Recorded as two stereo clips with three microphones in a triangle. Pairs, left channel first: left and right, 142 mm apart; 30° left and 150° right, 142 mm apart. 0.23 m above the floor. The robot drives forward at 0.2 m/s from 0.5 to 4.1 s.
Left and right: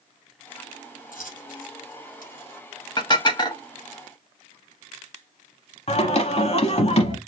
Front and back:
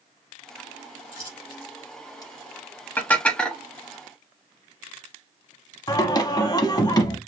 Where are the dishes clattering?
95° left, 0.7 m; by 3.6 s 110° left, 0.7 m.